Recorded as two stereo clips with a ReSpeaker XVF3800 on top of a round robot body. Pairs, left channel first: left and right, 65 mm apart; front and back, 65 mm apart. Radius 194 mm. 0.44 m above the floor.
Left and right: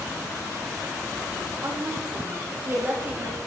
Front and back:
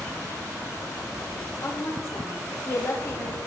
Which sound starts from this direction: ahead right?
A woman speaking, at 1.6 s.